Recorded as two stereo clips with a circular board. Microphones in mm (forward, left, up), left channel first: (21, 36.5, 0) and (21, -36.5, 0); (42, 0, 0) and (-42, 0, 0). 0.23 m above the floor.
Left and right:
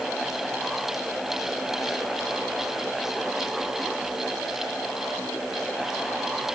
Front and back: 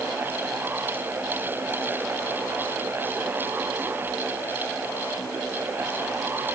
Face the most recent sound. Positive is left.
No sound to turn to.